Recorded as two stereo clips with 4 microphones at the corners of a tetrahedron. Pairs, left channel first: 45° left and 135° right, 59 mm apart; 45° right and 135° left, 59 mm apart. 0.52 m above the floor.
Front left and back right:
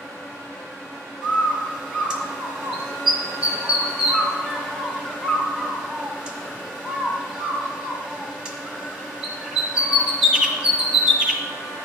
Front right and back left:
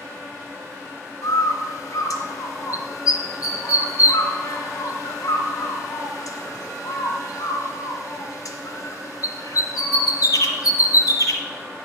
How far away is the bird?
About 1.3 m.